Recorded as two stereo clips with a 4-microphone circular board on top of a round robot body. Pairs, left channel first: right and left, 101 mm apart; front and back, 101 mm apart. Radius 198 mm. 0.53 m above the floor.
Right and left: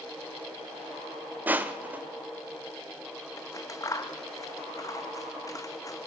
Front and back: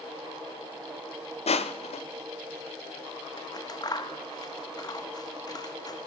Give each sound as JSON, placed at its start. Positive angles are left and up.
{"t": 1.5, "sound": "crushing", "azimuth_deg": 15, "distance_m": 1.0}
{"t": 3.4, "sound": "scissors", "azimuth_deg": -40, "distance_m": 1.5}